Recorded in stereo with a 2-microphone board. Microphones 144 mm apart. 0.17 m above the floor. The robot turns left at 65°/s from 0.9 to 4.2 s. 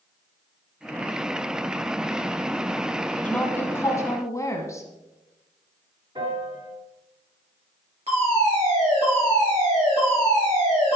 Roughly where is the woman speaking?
Centre.